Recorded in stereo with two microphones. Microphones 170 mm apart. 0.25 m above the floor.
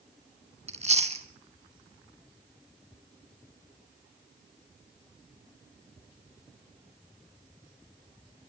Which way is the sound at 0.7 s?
40° right (ahead or behind).